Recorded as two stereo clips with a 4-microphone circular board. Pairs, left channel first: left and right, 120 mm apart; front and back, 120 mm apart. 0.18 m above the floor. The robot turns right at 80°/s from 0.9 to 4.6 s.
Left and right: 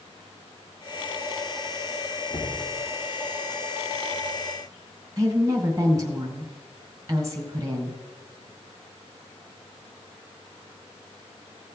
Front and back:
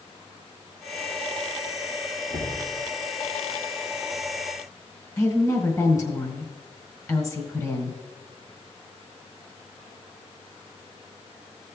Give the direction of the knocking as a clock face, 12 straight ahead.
6 o'clock.